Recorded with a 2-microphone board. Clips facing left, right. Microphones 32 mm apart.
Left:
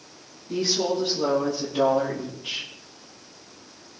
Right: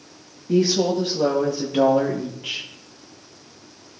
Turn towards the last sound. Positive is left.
turn(degrees=-80)